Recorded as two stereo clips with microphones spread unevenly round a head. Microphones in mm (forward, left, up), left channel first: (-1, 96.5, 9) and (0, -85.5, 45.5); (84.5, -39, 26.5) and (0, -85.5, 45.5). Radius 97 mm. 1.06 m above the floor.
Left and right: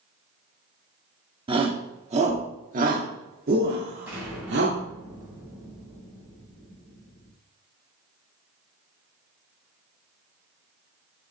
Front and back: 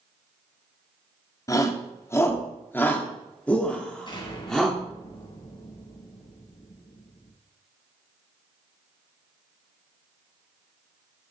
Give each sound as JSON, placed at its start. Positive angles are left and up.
{"t": 1.5, "sound": "a shout", "azimuth_deg": -25, "distance_m": 3.0}
{"t": 4.1, "sound": "an explosion", "azimuth_deg": -10, "distance_m": 7.5}